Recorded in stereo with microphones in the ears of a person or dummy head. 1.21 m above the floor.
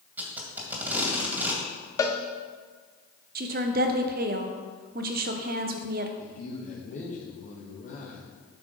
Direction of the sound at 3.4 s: 40° right (ahead or behind).